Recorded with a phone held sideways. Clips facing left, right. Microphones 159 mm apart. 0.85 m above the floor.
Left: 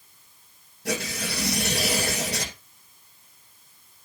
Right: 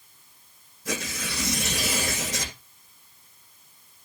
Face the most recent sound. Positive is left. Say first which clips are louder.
# left 3 dB
turn(degrees=75)  # may be behind; listen again after turning